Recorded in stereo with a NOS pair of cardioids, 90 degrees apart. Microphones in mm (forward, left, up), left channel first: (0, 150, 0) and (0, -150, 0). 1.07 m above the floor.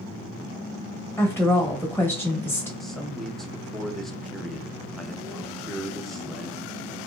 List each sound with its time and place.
1.2 s a woman speaking: 5° left, 1.1 m
2.8 s a man speaking: straight ahead, 0.8 m